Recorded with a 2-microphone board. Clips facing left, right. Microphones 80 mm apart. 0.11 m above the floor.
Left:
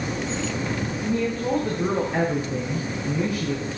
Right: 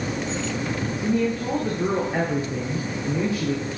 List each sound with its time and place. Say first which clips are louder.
1.0 s a woman speaking: right 2 dB; 10° right (ahead or behind), 7 m; by 3.6 s 30° right (ahead or behind), 6 m